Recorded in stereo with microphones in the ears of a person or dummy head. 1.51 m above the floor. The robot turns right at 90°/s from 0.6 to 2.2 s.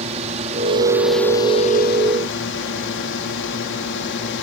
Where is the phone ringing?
I don't hear a phone ringing.